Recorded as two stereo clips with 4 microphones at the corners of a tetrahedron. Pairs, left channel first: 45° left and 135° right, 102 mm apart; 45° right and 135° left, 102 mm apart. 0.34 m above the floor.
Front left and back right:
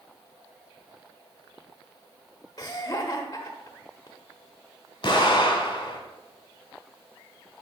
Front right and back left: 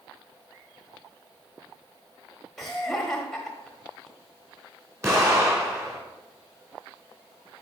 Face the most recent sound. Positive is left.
turn(degrees=80)